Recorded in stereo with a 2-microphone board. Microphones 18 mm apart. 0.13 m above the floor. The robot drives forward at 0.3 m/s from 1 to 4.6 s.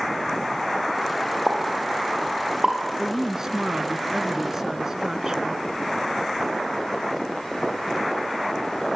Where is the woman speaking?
30° right (ahead or behind), 1.3 m.